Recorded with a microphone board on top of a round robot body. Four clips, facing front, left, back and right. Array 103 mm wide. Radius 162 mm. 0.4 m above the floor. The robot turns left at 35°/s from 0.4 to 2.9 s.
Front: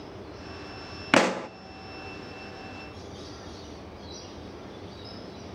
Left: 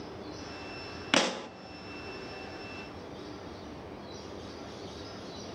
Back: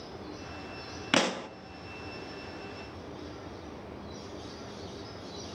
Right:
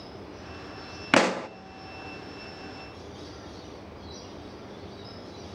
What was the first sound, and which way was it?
A pop, 45° right.